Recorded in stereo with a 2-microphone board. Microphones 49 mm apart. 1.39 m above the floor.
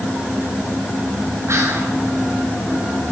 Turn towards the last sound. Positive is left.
turn(degrees=-70)  # may be behind; listen again after turning